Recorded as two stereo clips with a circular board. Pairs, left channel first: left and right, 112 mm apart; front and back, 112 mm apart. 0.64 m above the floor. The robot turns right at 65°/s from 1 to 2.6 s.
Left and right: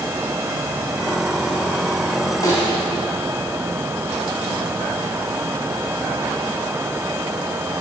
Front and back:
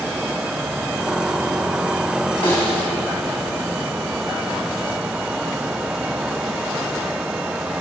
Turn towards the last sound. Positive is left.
turn(degrees=45)